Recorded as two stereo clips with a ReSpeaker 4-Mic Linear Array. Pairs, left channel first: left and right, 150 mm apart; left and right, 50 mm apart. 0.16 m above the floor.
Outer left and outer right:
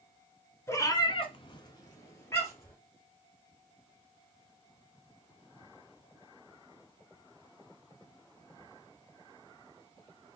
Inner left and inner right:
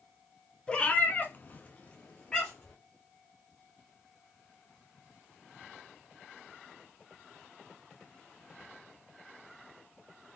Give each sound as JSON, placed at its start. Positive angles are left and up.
{"t": 0.7, "sound": "a cat meowing", "side_deg": 15, "distance_m": 0.8}